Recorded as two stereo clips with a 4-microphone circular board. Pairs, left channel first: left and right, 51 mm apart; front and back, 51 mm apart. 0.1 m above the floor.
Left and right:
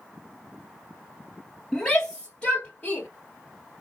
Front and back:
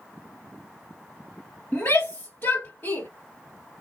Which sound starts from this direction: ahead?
A shout, at 1.7 s.